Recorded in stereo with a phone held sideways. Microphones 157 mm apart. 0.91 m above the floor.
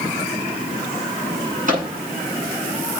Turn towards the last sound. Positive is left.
turn(degrees=-55)  # may be behind; listen again after turning